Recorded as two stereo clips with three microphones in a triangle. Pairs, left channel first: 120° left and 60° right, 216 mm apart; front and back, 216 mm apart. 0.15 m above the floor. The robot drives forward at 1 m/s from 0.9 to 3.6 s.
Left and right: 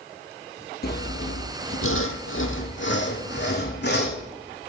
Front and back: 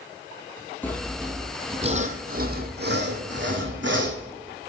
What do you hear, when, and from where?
0.8 s sawing: 80° left, 1.3 m; by 4.2 s 155° left, 3 m